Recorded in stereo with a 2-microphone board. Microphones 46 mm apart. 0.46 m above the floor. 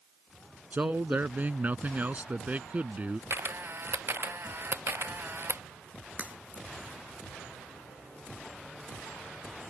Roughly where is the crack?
Right.